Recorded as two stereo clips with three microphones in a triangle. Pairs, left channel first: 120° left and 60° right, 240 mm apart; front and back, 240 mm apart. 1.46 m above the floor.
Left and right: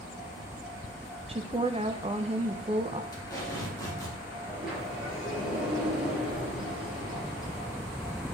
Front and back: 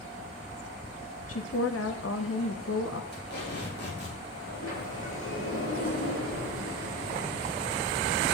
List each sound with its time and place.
1.3 s a woman speaking: 5° left, 0.8 m
3.1 s tape being pulled: 45° left, 3 m
4.5 s a sliding door: 30° left, 5.5 m